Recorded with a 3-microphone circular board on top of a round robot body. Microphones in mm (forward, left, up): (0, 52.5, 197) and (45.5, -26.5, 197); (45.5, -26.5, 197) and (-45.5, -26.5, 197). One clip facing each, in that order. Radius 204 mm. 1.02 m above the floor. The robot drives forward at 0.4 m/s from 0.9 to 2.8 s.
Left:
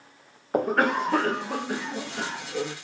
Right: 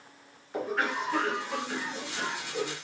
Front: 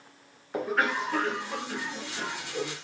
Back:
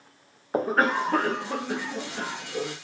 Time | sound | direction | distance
0.5 | a cough | 135° left | 0.5 m